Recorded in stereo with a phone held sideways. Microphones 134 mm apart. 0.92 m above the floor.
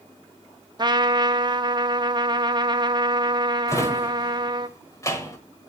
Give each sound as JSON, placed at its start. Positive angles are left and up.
{"t": 0.8, "sound": "a trumpet", "side_deg": -35, "distance_m": 0.6}
{"t": 3.7, "sound": "a drawer", "side_deg": 25, "distance_m": 1.2}